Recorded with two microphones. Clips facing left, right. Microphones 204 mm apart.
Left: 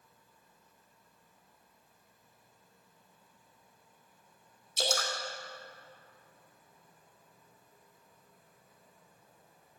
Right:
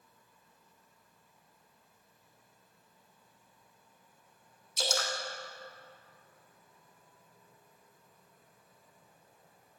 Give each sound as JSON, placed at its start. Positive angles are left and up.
{"t": 4.8, "sound": "dripping", "side_deg": 30, "distance_m": 3.0}